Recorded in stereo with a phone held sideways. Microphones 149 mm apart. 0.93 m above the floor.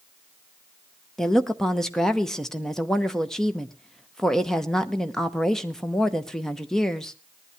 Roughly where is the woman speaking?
Centre.